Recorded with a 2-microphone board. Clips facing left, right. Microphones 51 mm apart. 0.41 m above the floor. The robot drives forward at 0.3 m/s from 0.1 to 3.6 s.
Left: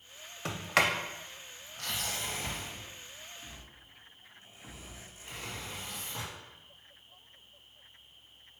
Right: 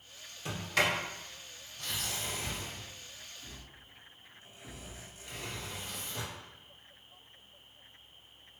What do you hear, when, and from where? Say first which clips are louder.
0.5 s a sliding door: left 2 dB; 70° left (ahead or behind), 0.5 m; by 6.3 s 30° left (ahead or behind), 0.9 m